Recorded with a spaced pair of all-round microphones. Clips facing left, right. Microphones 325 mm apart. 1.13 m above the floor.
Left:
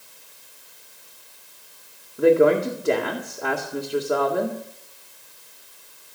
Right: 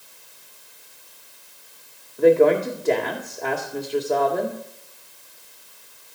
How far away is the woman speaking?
About 2.0 m.